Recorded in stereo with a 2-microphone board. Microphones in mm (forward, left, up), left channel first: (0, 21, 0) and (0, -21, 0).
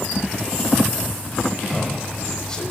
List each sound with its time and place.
1.7 s a man speaking: 15° left (ahead or behind), 5.5 m